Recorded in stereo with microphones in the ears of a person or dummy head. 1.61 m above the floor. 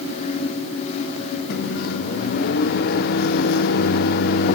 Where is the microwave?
60° left (ahead or behind), 0.8 m.